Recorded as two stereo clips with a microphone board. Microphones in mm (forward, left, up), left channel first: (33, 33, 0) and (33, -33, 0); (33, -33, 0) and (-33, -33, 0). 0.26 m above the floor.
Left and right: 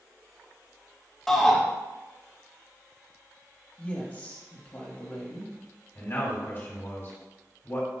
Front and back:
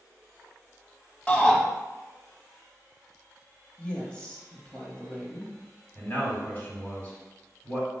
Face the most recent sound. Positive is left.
turn(degrees=55)